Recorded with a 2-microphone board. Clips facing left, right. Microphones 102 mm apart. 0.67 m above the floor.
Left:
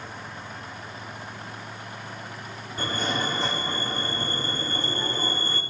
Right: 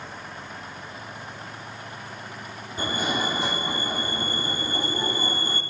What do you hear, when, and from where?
2.8 s a fire alarm: 10° right (ahead or behind), 3 m